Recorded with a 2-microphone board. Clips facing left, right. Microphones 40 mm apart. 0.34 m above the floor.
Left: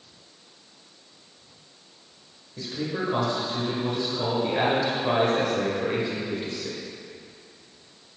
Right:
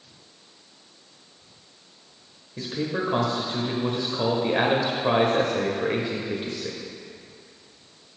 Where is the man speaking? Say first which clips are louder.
Right 2 dB; 25° right (ahead or behind), 0.9 m.